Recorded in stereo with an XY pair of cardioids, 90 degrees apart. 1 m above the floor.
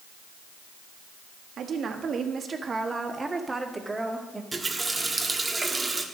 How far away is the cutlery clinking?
No cutlery clinking in this recording.